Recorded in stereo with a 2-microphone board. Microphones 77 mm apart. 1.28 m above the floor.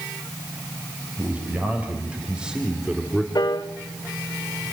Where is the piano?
60° left (ahead or behind), 1.6 m.